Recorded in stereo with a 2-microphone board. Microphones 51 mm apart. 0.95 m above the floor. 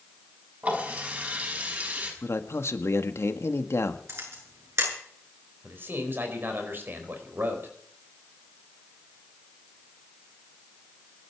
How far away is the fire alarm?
I don't hear a fire alarm.